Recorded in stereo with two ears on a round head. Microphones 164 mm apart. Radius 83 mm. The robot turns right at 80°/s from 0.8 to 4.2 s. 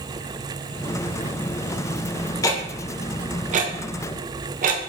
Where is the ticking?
20° left (ahead or behind), 0.7 m; by 4.9 s 45° right (ahead or behind), 0.7 m.